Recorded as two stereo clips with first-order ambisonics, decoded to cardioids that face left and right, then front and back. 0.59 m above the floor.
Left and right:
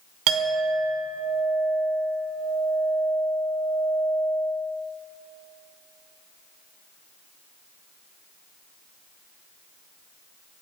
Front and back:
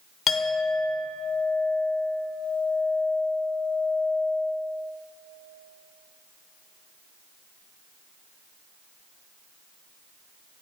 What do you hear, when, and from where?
0.3 s a clink: 60° right, 1.0 m